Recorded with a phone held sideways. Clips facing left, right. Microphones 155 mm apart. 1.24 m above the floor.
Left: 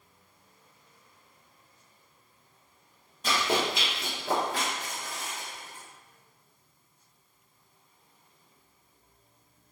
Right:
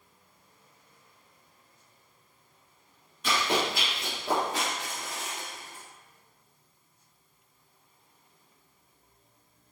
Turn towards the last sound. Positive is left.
turn(degrees=-85)